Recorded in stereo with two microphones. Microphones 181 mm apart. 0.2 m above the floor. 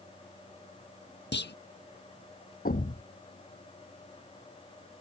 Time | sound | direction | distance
1.3 | a clunk | 75° left (ahead or behind) | ?
2.6 | a thud | 50° left (ahead or behind) | ?